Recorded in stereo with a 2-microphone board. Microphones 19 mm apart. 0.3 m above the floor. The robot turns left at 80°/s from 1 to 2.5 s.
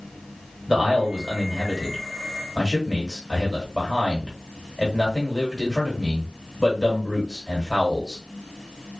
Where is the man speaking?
90° right, 1.5 m; by 8.2 s 150° left, 1.5 m.